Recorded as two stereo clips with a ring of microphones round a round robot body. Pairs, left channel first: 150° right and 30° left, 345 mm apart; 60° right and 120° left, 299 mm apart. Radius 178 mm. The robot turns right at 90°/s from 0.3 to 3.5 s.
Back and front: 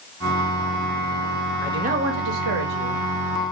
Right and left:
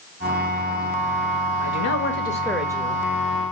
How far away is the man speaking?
About 1.1 m.